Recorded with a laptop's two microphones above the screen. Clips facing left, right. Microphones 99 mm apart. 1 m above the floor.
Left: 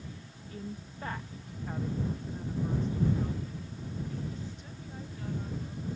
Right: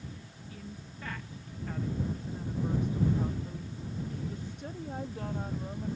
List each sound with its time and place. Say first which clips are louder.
0.5 s a woman speaking: left 5 dB; 40° left (ahead or behind); by 6.0 s 65° right (ahead or behind)